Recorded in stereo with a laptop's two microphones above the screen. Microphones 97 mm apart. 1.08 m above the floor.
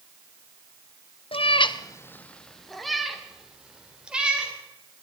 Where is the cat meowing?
70° left (ahead or behind), 0.6 m; by 4.5 s 10° right (ahead or behind), 3 m.